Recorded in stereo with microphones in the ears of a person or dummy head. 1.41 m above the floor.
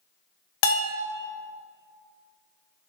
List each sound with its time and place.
0.6 s a bell: 75° left (ahead or behind), 0.8 m